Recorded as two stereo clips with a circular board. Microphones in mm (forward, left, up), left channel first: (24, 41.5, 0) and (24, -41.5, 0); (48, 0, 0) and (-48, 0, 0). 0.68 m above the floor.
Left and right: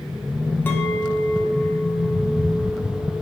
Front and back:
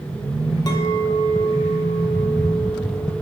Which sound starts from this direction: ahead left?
A clink, at 0.7 s.